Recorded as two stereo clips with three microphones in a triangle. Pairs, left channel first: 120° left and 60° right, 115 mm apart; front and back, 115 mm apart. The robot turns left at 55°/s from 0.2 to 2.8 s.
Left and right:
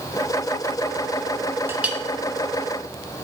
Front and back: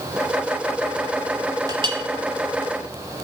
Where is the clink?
125° right, 1.2 m; by 2.0 s 145° right, 1.2 m.